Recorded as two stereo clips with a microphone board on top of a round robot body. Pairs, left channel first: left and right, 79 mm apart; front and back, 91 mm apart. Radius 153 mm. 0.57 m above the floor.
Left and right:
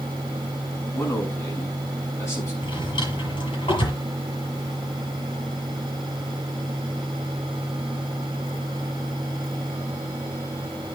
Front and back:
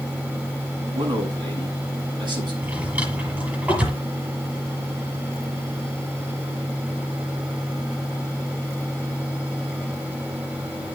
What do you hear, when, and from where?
0.9 s a man speaking: 145° left, 7 m
2.6 s a drawer: 105° left, 7.5 m